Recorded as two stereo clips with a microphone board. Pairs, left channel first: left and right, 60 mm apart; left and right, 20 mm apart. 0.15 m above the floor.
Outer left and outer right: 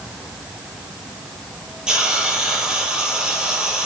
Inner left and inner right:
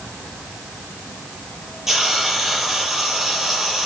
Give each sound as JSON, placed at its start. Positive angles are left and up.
{"t": 1.9, "sound": "a hiss", "side_deg": -15, "distance_m": 4.0}